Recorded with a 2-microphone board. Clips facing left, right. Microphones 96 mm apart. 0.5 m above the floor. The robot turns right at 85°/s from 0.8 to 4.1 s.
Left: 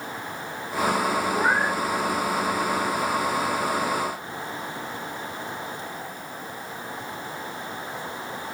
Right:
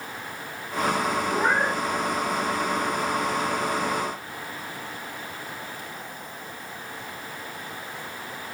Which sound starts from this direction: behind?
A cat meowing, at 1.3 s.